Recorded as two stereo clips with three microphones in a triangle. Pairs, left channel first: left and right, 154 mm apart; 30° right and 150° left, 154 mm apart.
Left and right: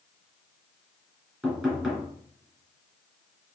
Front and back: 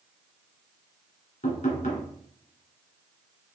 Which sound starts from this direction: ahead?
Knocking, at 1.4 s.